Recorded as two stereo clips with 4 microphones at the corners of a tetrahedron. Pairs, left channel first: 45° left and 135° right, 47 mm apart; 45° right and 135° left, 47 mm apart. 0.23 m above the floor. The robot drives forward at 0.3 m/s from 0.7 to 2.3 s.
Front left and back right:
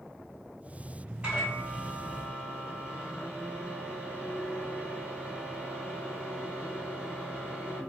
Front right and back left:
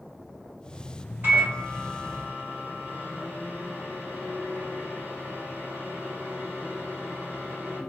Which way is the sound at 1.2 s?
165° left.